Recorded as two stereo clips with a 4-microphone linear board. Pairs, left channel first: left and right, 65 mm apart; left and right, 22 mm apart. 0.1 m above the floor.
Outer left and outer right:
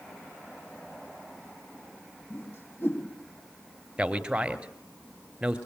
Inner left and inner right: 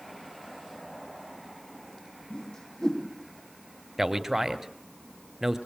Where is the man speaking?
15° right (ahead or behind), 1.5 m.